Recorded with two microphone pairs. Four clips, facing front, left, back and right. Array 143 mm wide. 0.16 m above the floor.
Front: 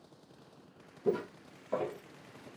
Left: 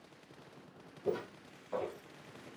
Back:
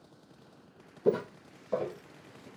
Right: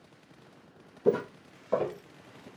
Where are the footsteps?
125° right, 0.5 m; by 2.5 s 65° right, 0.9 m.